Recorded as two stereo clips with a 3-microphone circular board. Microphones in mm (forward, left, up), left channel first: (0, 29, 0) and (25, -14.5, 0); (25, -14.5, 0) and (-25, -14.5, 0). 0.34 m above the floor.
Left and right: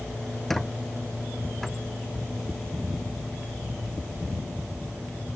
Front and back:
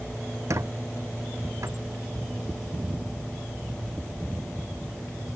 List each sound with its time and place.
0.5 s a squeak: 155° right